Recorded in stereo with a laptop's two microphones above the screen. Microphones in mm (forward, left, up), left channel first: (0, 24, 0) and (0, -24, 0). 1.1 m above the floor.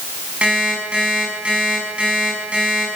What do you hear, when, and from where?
0.4 s an alarm clock: 25° right (ahead or behind), 6.5 m